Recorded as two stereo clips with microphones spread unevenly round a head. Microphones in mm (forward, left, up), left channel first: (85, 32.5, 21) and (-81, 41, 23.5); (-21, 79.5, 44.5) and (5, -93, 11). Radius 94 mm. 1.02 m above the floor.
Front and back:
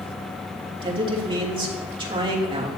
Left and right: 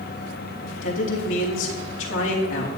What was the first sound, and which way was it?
A man speaking, 115° left.